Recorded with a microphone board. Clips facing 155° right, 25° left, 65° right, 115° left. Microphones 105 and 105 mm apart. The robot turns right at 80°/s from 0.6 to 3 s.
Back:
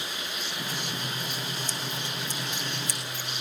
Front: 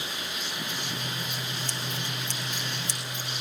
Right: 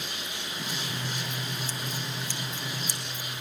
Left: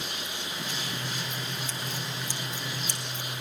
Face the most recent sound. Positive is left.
turn(degrees=95)